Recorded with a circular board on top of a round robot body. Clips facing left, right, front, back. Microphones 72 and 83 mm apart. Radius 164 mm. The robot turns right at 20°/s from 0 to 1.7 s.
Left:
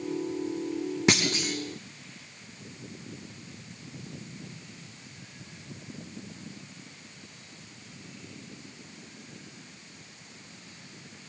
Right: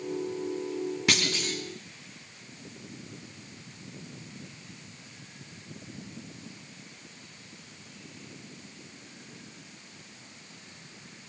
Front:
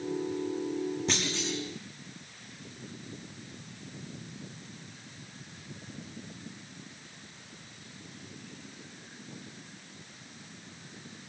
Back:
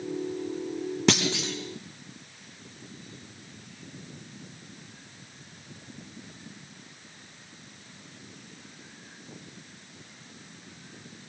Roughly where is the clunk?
Behind.